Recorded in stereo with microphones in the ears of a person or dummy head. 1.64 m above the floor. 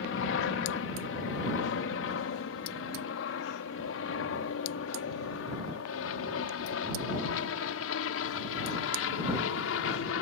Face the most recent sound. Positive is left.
turn(degrees=75)  # may be behind; listen again after turning